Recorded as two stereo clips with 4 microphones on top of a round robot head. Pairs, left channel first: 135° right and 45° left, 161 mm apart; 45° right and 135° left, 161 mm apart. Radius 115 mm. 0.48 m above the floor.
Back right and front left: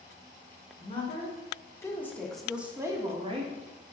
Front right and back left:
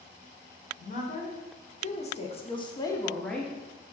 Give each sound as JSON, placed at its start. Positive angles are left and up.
{"t": 0.8, "sound": "a woman speaking", "azimuth_deg": -80, "distance_m": 2.0}